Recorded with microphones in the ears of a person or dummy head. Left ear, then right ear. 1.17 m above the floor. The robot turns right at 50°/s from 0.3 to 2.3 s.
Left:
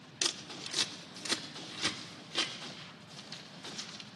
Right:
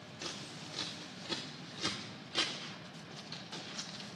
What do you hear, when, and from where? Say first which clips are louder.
0.2 s scissors: left 9 dB; 60° left (ahead or behind), 1.0 m; by 4.2 s 5° left (ahead or behind), 1.0 m